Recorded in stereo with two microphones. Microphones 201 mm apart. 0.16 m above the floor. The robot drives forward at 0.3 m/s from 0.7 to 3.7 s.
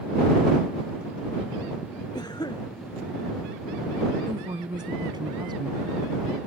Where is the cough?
20° left (ahead or behind).